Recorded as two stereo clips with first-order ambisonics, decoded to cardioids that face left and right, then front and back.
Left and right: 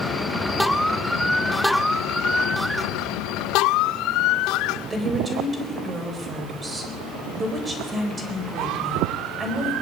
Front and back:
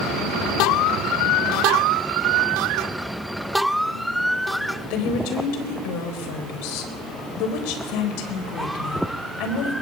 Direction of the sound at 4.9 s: 15° right.